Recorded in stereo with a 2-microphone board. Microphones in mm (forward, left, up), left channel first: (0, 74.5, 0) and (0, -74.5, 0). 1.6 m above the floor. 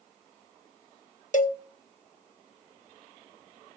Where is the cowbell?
55° left (ahead or behind), 0.8 m.